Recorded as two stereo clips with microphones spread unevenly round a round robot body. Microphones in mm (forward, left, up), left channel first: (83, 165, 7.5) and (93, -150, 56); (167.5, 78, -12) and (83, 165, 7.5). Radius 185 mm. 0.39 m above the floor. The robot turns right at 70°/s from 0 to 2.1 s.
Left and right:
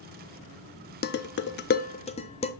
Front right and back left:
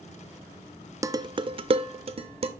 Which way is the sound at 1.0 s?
65° left.